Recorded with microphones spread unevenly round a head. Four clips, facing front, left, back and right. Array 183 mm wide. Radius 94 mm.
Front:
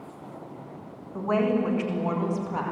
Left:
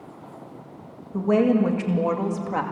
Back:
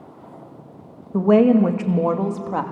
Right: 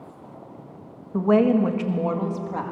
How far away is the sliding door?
I don't hear a sliding door.